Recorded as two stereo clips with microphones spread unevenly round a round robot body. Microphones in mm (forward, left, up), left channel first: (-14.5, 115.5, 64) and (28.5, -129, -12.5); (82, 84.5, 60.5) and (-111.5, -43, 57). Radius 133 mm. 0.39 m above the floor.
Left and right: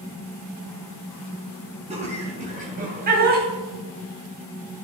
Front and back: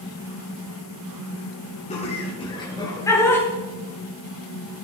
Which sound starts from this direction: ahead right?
Laughter, at 1.9 s.